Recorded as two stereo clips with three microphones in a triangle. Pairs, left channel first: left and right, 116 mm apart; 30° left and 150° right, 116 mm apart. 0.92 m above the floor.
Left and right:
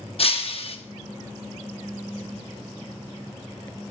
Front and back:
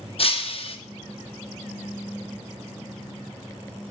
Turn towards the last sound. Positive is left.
turn(degrees=60)